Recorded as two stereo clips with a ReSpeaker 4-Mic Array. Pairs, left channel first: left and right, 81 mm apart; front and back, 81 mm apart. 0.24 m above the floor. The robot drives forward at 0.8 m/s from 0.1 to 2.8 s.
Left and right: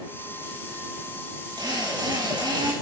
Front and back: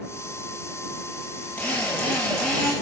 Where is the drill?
75° right, 5.5 m; by 2.7 s 80° right, 5.5 m.